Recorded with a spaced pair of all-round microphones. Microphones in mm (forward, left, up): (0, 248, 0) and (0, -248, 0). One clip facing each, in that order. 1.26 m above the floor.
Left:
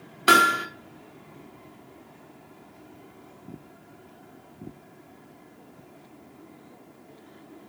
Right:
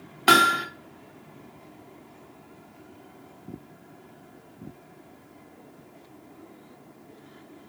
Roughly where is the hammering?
Centre.